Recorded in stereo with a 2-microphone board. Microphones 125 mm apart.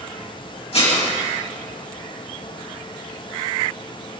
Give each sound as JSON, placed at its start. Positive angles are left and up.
{"t": 0.7, "sound": "dishes clattering", "side_deg": 50, "distance_m": 8.0}